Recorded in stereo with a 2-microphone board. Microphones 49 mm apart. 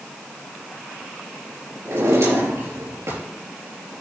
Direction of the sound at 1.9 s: 85° right.